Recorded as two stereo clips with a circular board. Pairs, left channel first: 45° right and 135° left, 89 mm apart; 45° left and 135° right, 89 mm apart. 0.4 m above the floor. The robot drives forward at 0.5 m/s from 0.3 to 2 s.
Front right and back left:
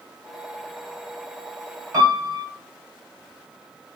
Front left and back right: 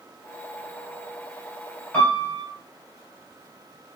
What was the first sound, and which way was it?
A piano, 105° left.